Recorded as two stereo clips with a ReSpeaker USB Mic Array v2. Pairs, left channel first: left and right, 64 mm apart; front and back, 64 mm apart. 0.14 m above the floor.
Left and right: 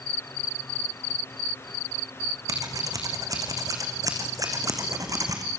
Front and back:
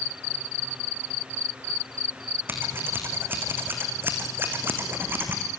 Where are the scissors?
125° right, 4 m.